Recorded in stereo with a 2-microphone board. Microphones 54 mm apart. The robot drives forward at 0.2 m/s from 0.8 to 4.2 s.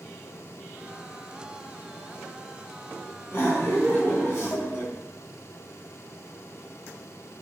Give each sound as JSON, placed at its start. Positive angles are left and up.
{"t": 3.3, "sound": "laughter", "side_deg": 50, "distance_m": 2.0}